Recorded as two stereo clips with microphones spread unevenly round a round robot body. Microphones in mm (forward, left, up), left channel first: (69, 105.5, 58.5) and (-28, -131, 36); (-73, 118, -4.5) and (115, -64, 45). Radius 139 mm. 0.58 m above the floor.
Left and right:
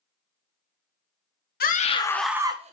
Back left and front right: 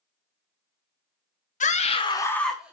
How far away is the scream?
About 1.1 m.